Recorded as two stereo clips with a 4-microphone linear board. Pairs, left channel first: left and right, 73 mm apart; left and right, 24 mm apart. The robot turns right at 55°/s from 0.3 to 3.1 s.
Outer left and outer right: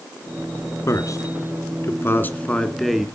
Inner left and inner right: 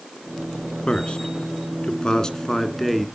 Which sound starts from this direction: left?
A man speaking, at 0.9 s.